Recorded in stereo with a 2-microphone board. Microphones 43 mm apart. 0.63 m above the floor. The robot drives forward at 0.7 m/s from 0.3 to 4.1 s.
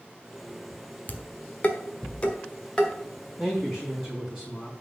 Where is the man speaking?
5° left (ahead or behind), 3.5 m.